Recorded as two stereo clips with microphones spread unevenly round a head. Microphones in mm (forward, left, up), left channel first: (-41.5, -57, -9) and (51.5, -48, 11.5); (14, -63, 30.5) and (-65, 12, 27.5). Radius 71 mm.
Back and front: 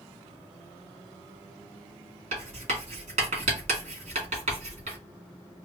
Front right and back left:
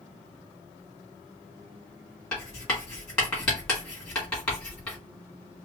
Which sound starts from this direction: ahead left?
Writing, at 2.3 s.